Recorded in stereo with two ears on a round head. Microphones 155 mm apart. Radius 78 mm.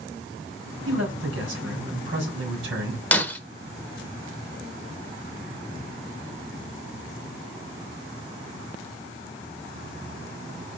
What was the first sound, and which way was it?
A man speaking, 80° right.